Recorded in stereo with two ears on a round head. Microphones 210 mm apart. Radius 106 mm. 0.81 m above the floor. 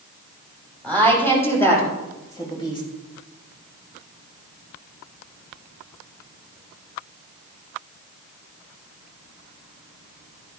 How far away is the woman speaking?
About 5.5 m.